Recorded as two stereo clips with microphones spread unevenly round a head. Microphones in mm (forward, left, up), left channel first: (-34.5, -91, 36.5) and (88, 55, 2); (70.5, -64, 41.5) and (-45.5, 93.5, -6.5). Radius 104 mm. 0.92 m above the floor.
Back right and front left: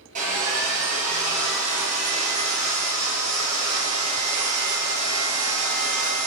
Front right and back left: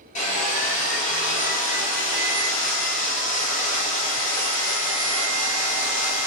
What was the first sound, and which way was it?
Sawing, straight ahead.